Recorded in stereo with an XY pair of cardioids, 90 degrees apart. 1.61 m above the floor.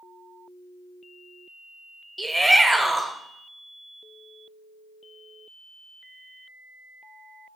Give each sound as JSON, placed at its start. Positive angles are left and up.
{"t": 2.2, "sound": "a shout", "azimuth_deg": -10, "distance_m": 0.7}